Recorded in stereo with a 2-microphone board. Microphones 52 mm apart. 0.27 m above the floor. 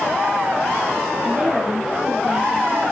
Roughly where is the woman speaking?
Right.